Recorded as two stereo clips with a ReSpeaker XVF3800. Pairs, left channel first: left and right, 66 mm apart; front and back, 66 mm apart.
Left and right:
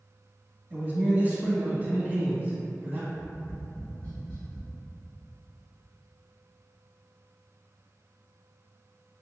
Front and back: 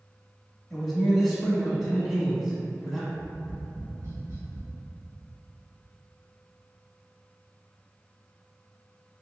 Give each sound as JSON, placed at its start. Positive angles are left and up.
{"t": 0.7, "sound": "a man speaking", "azimuth_deg": -90, "distance_m": 1.1}
{"t": 3.1, "sound": "tapping", "azimuth_deg": 145, "distance_m": 1.8}